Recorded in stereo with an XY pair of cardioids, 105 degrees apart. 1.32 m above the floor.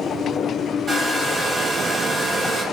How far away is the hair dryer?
About 1.0 m.